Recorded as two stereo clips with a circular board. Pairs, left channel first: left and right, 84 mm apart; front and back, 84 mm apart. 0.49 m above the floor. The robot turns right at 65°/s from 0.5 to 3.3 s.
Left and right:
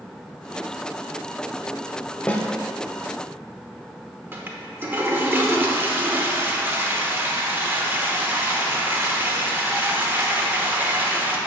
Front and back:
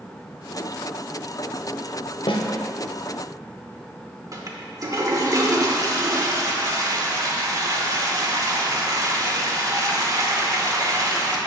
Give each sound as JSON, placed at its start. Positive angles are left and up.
{"t": 2.3, "sound": "a snare drum", "azimuth_deg": 15, "distance_m": 0.6}
{"t": 4.3, "sound": "a toilet flushing", "azimuth_deg": -150, "distance_m": 0.7}